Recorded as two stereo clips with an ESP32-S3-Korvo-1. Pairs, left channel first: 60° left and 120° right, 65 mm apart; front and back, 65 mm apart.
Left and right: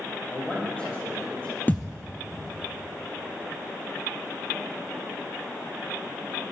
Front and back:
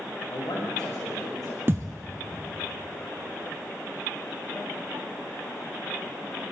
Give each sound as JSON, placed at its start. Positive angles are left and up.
{"t": 0.3, "sound": "a man speaking", "azimuth_deg": -10, "distance_m": 7.0}
{"t": 1.7, "sound": "a thud", "azimuth_deg": 125, "distance_m": 1.0}